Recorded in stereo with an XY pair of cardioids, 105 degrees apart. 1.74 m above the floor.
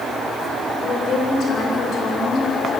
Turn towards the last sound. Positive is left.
turn(degrees=65)